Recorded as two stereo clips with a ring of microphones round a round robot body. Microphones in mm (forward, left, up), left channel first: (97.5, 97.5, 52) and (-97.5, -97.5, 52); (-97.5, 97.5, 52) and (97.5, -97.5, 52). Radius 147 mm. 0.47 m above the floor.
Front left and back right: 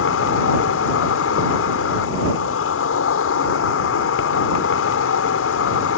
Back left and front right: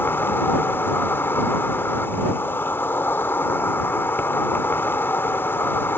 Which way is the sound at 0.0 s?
55° left.